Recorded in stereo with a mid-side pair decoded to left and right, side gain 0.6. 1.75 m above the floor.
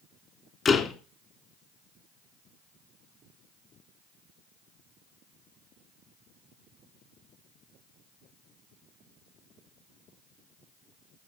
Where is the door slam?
40° left, 3.5 m.